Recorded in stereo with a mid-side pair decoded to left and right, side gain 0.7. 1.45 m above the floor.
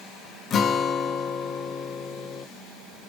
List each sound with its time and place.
0.5 s a guitar: 40° left, 1.1 m